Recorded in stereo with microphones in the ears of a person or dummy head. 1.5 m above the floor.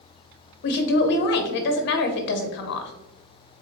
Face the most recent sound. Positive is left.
turn(degrees=60)  # may be behind; listen again after turning